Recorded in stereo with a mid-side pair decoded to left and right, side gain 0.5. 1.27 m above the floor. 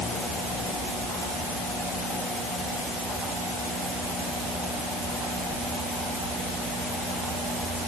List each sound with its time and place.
Only background noise.